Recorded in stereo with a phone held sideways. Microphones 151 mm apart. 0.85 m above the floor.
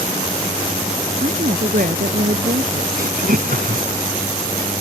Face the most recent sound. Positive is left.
turn(degrees=-70)  # may be behind; listen again after turning